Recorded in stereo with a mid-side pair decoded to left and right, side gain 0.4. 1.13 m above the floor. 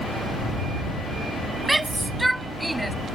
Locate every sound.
1.6 s a shout: 20° right; by 3.0 s 15° right